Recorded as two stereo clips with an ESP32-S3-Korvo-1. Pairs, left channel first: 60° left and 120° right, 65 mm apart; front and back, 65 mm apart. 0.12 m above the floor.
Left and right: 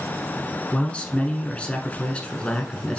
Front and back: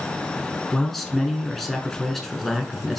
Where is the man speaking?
85° left, 1.0 m.